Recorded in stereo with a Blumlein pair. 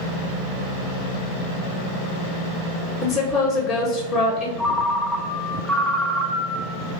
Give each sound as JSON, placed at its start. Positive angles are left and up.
{"t": 3.0, "sound": "a woman speaking", "azimuth_deg": 10, "distance_m": 0.6}
{"t": 4.6, "sound": "a ringtone", "azimuth_deg": 0, "distance_m": 0.5}